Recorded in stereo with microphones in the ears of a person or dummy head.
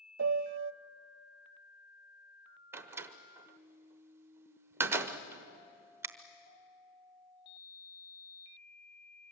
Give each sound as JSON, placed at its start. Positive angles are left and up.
{"t": 0.2, "sound": "a piano", "side_deg": -70, "distance_m": 0.5}
{"t": 2.7, "sound": "a door slam", "side_deg": -20, "distance_m": 0.9}